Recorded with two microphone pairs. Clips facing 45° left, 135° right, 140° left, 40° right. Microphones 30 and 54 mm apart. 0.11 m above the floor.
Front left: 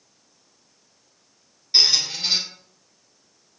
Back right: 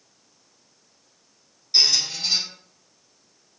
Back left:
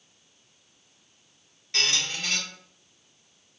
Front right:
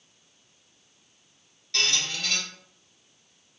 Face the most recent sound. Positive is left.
turn(degrees=90)